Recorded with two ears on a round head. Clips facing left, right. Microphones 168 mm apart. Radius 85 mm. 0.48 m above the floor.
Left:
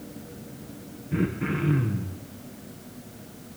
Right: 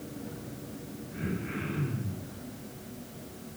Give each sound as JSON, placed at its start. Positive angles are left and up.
{"t": 1.1, "sound": "throat clearing", "side_deg": 75, "distance_m": 6.5}